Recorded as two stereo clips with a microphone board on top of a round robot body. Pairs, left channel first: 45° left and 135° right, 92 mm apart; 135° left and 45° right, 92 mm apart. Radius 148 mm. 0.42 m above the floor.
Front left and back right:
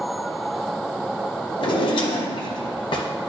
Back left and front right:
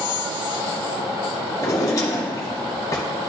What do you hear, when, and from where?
1.6 s a drawer: 80° left, 1.0 m